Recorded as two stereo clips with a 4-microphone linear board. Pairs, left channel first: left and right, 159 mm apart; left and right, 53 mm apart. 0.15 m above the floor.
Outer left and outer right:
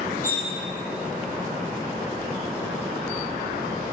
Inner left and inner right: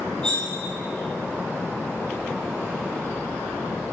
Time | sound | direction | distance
0.2 | cutlery clinking | 15° left (ahead or behind) | 1.3 m